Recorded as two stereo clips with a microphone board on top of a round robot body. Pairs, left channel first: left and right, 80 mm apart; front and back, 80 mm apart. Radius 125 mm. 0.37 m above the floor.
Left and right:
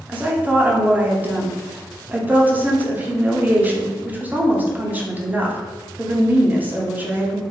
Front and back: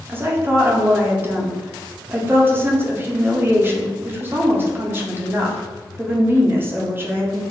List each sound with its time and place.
0.1 s a woman speaking: 140° right, 0.9 m